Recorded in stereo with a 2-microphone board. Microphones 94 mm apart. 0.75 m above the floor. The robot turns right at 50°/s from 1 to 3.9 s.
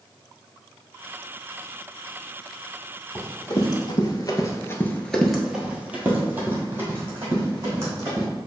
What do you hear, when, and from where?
3.1 s running footsteps: 15° left (ahead or behind), 1.6 m; by 8.3 s 30° right (ahead or behind), 3 m